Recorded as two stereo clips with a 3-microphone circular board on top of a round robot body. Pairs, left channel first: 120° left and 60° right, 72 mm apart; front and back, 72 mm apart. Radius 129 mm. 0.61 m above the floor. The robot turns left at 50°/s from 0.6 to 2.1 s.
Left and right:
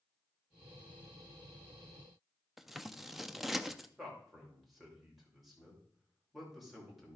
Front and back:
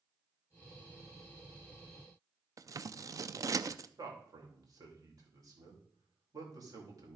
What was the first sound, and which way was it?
Scissors, 145° right.